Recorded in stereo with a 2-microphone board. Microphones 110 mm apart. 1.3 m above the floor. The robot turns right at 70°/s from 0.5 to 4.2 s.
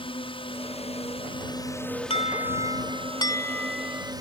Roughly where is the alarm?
Ahead left.